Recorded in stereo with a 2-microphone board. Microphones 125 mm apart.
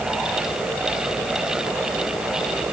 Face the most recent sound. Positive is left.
No sound to turn to.